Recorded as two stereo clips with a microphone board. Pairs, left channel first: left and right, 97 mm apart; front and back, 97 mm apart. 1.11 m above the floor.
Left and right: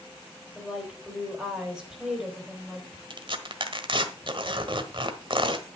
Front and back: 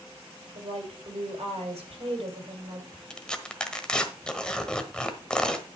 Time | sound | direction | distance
0.6 | a woman speaking | 175° right | 4.5 m
3.1 | tearing paper | 80° right | 1.3 m